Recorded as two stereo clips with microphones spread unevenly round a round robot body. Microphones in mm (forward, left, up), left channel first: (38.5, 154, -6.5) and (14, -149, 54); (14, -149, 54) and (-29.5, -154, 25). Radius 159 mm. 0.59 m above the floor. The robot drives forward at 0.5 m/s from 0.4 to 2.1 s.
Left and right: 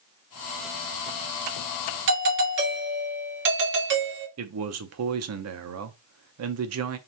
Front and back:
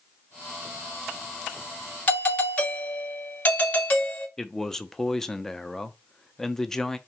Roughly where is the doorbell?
Right.